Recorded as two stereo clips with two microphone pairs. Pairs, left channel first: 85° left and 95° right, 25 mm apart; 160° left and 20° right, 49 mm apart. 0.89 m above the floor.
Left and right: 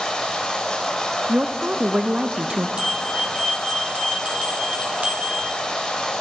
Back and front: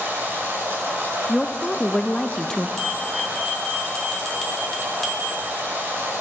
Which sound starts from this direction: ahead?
Running water, at 0.0 s.